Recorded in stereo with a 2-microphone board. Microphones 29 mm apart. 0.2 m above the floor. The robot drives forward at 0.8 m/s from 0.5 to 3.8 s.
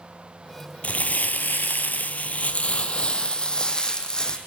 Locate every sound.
0.8 s crumpling: 55° left (ahead or behind), 1.1 m; by 4.4 s 25° left (ahead or behind), 2.0 m